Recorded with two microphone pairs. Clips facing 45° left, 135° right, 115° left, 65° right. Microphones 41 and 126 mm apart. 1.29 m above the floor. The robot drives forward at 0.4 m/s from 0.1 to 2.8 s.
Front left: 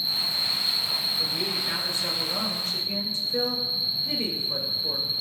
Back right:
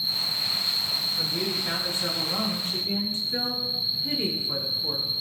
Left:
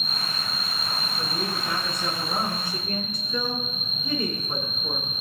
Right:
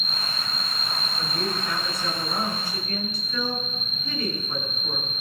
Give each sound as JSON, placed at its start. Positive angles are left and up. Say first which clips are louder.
{"t": 0.0, "sound": "an insect", "louder": "front left 1 dB, even", "azimuth_deg": -165, "distance_m": 7.5}
{"t": 1.2, "sound": "a woman speaking", "louder": "even, right 2 dB", "azimuth_deg": -175, "distance_m": 6.5}